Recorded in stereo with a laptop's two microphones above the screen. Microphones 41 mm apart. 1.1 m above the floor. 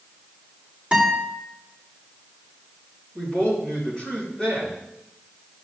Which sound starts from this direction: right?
A guitar, at 0.9 s.